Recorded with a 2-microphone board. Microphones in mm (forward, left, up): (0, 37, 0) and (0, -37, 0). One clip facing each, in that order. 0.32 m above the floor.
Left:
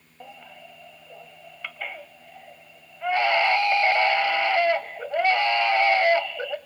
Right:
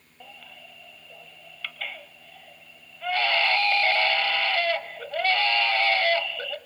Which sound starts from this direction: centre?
A baby crying, at 0.2 s.